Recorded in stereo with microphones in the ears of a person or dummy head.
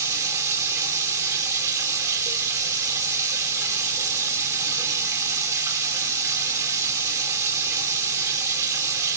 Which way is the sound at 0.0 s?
20° right (ahead or behind).